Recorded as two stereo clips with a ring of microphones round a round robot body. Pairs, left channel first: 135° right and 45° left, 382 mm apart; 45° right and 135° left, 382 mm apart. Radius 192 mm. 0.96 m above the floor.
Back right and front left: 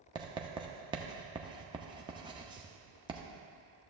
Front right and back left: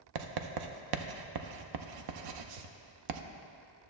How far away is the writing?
About 0.5 m.